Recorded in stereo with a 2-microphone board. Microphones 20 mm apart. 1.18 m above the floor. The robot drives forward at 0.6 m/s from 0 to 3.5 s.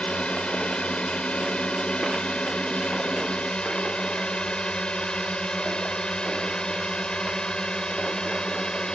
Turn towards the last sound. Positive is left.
turn(degrees=40)  # may be behind; listen again after turning